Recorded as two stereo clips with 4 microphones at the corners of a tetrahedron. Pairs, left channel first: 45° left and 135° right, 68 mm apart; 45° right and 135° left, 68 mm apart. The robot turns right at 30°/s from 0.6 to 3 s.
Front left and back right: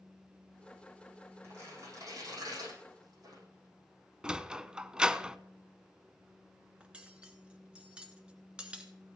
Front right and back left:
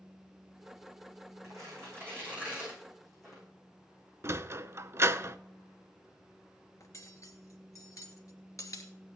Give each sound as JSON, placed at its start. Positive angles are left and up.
{"t": 1.4, "sound": "tearing paper", "azimuth_deg": 175, "distance_m": 8.5}
{"t": 4.2, "sound": "a sliding door", "azimuth_deg": 155, "distance_m": 0.5}
{"t": 6.8, "sound": "cutlery clinking", "azimuth_deg": -65, "distance_m": 1.5}